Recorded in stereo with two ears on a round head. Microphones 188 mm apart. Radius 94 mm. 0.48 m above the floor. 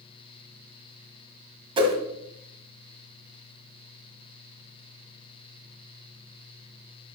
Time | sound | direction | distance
1.8 | a whoosh | 25° right (ahead or behind) | 1.8 m